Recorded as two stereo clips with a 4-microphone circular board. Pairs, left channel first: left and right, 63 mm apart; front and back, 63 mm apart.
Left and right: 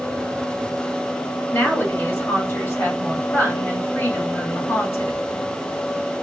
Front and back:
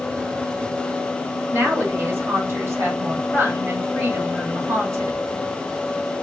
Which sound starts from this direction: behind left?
A woman speaking, at 1.5 s.